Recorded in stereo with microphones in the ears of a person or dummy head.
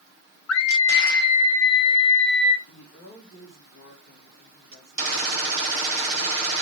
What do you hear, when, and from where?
0.5 s a scream: 80° left, 1.2 m; by 2.6 s 50° left (ahead or behind), 3 m
2.7 s a woman speaking: 55° left (ahead or behind), 3.5 m